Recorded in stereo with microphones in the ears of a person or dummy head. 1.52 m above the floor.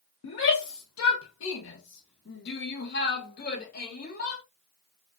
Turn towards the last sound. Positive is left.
turn(degrees=45)  # may be behind; listen again after turning